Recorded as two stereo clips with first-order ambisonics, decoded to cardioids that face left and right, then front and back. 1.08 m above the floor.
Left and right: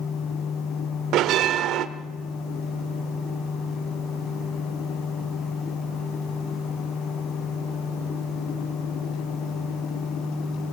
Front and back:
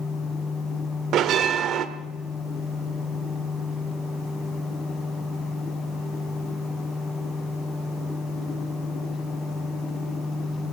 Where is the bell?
130° right, 1.4 m.